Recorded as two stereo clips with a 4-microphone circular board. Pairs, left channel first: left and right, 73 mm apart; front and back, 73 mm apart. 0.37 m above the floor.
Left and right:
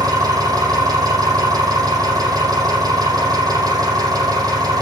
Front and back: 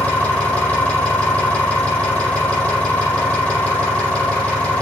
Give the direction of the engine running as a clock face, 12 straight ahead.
2 o'clock.